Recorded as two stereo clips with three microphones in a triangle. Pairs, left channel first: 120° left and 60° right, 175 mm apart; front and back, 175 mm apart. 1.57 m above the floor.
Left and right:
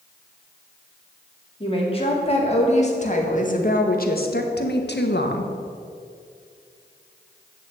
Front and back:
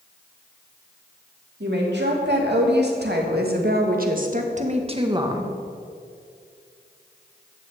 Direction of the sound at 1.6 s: 175° left.